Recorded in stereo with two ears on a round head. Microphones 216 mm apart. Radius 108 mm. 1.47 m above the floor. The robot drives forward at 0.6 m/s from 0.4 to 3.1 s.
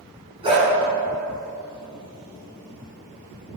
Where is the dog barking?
25° right (ahead or behind), 5 m; by 0.7 s 20° right (ahead or behind), 5 m.